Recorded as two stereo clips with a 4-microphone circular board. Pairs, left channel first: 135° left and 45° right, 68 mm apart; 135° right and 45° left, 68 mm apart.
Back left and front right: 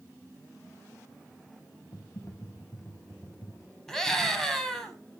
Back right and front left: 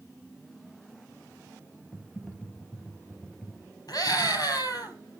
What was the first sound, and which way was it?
Typing on a keyboard, 140° left.